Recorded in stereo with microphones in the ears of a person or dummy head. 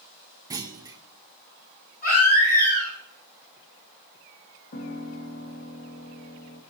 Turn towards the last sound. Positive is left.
turn(degrees=55)  # may be behind; listen again after turning